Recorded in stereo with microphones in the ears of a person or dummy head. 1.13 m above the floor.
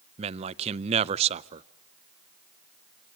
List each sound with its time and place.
0.2 s a man speaking: 35° right (ahead or behind), 0.5 m